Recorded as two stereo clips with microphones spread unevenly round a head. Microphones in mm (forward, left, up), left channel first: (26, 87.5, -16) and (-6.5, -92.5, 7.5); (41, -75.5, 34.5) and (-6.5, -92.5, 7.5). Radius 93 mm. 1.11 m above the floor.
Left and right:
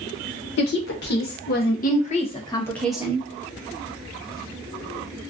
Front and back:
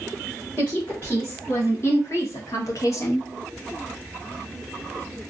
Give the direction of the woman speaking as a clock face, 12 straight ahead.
9 o'clock.